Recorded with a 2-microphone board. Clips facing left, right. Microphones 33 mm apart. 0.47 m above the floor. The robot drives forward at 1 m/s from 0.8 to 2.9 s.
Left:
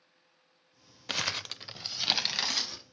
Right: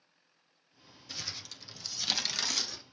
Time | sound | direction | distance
1.1 | crumpling | 75° left (ahead or behind) | 0.5 m